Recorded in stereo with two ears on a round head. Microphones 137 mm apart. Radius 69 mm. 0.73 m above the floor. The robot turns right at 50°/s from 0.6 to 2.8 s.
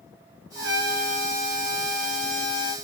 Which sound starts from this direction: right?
A trumpet, at 0.6 s.